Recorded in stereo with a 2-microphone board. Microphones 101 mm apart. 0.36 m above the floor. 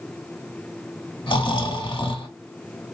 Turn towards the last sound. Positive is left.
turn(degrees=50)  # may be behind; listen again after turning